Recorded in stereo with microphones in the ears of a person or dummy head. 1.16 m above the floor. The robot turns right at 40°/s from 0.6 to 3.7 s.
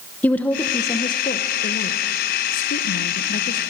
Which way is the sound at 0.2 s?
5° left.